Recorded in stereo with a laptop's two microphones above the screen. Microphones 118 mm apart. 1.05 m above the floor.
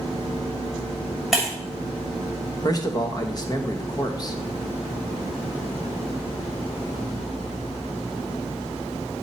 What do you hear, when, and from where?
1.3 s breaking glass: 5° right (ahead or behind), 2.5 m
2.6 s a man speaking: 35° left (ahead or behind), 0.9 m